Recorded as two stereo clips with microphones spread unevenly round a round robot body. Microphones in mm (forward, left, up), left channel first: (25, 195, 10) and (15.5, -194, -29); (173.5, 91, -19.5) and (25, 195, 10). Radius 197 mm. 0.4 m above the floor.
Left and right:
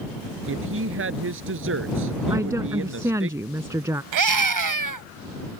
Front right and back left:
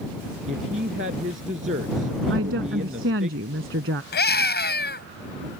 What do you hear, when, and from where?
0.5 s a woman speaking: 150° right
2.3 s a woman speaking: 175° right
4.1 s a scream: 60° right